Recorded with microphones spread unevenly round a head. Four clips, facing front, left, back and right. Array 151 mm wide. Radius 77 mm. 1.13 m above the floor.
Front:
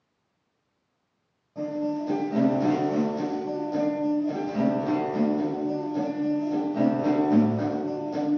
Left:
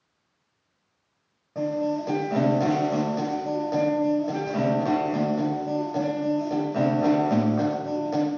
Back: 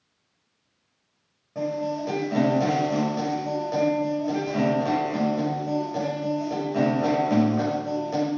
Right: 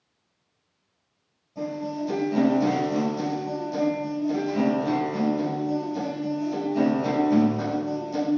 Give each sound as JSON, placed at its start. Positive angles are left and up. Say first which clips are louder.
{"t": 1.6, "sound": "a guitar", "louder": "left 4 dB, back 1 dB", "azimuth_deg": 125, "distance_m": 6.5}